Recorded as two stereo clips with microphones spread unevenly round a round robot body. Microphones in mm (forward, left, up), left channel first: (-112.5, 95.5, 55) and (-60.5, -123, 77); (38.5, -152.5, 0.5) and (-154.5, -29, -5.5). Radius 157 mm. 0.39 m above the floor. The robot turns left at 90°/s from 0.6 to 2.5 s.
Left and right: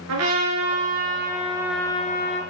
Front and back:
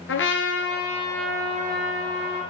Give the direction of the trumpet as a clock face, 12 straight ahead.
2 o'clock.